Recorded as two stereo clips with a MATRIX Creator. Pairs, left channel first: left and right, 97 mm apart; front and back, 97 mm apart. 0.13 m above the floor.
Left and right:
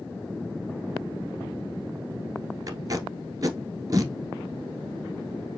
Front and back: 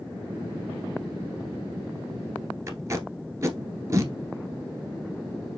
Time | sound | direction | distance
2.7 | tape being pulled | 130° right | 1.0 m